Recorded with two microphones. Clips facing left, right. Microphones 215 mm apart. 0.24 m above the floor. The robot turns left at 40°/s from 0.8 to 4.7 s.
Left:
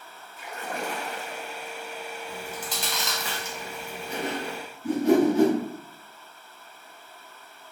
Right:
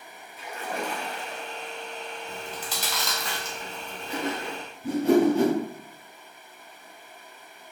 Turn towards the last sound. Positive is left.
turn(degrees=-35)  # may be behind; listen again after turning